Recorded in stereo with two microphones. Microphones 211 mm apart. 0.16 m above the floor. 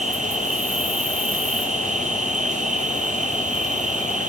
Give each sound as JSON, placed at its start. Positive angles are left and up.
{"t": 0.0, "sound": "an insect", "side_deg": -35, "distance_m": 3.5}